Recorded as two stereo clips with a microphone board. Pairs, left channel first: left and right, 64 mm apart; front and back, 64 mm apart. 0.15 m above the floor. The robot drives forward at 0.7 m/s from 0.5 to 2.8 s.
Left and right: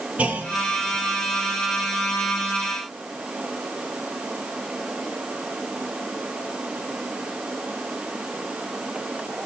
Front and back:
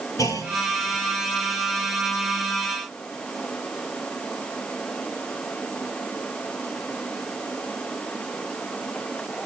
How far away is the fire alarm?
I don't hear a fire alarm.